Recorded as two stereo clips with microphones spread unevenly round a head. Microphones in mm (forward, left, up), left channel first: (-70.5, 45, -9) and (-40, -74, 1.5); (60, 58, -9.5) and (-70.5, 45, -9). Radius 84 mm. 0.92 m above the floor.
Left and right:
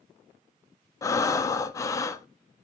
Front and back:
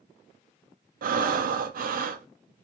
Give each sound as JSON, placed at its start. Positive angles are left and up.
{"t": 1.0, "sound": "breathing", "azimuth_deg": 170, "distance_m": 0.6}